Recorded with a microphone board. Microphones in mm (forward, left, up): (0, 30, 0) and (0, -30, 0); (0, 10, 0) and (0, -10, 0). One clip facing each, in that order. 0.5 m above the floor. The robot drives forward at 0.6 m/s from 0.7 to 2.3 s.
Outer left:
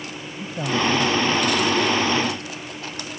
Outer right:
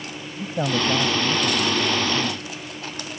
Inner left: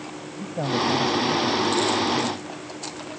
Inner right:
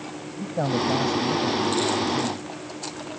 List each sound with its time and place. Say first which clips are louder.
0.4 s a man speaking: even, even; 30° right (ahead or behind); by 2.4 s 20° right (ahead or behind)